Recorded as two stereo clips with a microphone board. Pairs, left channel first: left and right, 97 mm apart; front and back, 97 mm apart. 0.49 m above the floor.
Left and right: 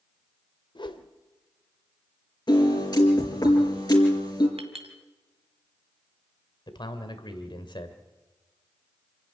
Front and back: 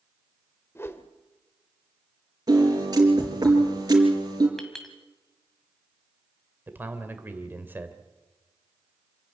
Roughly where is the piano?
Behind left.